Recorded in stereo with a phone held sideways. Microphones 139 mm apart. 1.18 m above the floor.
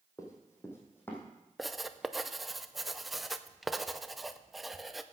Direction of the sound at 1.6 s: Centre (ahead or behind).